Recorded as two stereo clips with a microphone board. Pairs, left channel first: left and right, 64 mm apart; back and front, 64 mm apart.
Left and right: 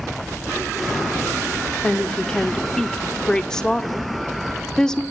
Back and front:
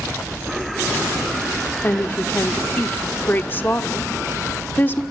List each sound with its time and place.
1.8 s a woman speaking: 160° left, 0.7 m